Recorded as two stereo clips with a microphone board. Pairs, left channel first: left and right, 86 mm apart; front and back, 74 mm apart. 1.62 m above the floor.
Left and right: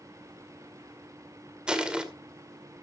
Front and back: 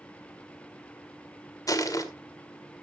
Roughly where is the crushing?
Ahead.